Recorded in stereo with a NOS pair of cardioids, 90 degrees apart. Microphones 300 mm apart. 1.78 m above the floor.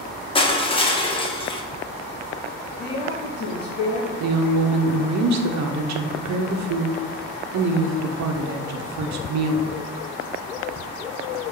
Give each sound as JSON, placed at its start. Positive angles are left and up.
{"t": 0.3, "sound": "crushing", "azimuth_deg": 20, "distance_m": 1.3}
{"t": 2.8, "sound": "a woman speaking", "azimuth_deg": 35, "distance_m": 2.5}
{"t": 4.2, "sound": "a woman speaking", "azimuth_deg": -65, "distance_m": 1.0}